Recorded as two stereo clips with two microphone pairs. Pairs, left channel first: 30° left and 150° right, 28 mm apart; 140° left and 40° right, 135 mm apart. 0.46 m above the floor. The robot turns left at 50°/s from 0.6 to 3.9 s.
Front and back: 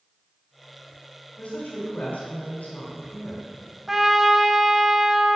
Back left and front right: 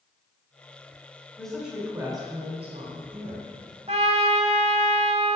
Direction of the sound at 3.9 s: 75° right.